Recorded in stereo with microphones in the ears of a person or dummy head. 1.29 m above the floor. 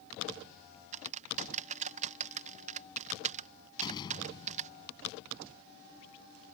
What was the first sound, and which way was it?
Typing on a keyboard, 40° right (ahead or behind).